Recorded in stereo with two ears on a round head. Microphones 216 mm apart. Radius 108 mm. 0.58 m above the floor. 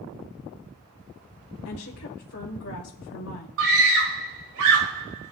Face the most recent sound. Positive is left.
turn(degrees=-60)  # may be behind; listen again after turning